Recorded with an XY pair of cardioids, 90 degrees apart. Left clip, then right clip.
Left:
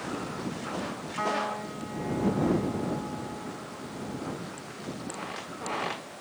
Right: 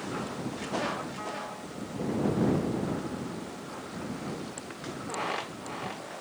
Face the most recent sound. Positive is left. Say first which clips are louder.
# left 7 dB
turn(degrees=65)